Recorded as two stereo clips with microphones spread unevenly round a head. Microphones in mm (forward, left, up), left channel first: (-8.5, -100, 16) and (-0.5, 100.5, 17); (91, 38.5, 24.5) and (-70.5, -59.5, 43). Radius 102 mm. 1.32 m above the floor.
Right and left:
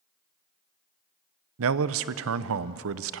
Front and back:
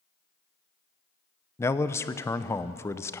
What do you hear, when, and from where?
1.6 s a man speaking: 105° left, 0.6 m